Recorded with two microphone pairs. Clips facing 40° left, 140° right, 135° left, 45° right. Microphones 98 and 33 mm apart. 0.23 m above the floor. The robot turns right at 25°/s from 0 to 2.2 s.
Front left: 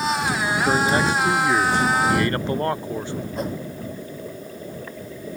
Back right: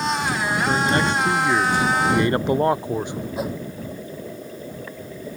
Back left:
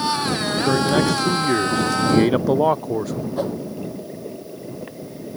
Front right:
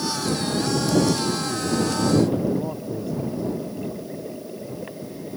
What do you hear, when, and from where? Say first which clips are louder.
0.7 s a man speaking: front left 1 dB, back left 3 dB; 110° left; by 3.3 s 150° left
3.4 s a whoosh: back right 1 dB, back left 6 dB; 135° left